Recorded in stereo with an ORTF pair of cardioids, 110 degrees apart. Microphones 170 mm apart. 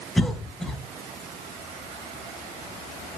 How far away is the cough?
About 0.5 m.